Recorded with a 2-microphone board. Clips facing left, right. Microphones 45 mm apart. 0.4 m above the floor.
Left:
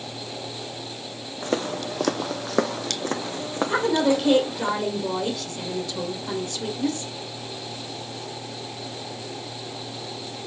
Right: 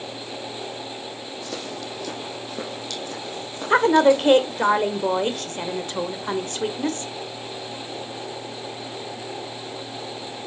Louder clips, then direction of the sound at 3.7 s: Right 6 dB; 40° right (ahead or behind).